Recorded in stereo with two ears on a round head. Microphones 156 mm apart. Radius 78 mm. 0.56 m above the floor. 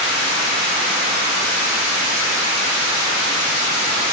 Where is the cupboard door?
No cupboard door in this recording.